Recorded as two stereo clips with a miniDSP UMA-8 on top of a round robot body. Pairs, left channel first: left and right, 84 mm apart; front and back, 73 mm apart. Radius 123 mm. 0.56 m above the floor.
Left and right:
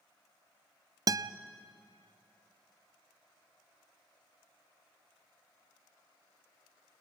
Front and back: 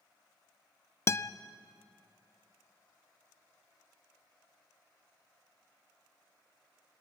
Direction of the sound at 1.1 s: 50° right.